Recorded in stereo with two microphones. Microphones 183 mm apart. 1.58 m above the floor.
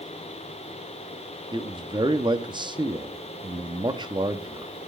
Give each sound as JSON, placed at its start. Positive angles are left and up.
{"t": 1.5, "sound": "a man speaking", "side_deg": -25, "distance_m": 0.6}